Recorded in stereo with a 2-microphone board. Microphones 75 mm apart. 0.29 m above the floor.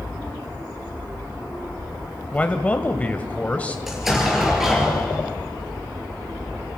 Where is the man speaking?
20° left (ahead or behind), 1.5 m.